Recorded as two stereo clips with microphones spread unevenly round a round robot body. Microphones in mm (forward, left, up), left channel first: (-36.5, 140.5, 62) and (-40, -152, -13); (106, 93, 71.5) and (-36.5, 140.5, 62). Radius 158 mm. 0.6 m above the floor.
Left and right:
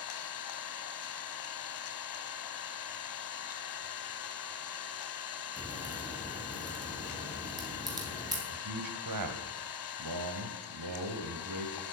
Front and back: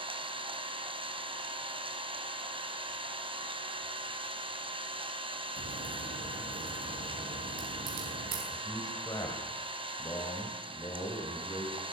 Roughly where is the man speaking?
Right.